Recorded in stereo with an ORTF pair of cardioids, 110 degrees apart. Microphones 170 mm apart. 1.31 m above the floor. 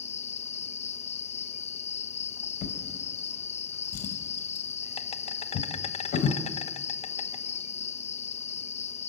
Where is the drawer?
65° left, 2.5 m.